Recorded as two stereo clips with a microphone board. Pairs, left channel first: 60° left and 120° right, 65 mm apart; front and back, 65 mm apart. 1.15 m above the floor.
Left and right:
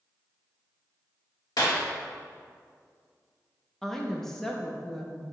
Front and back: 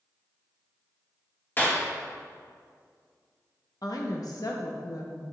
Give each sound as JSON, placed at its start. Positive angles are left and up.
{"t": 1.6, "sound": "a clap", "azimuth_deg": 55, "distance_m": 1.5}
{"t": 3.8, "sound": "a woman speaking", "azimuth_deg": -25, "distance_m": 0.8}